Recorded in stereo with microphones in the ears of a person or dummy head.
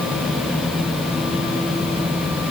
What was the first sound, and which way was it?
Only background noise.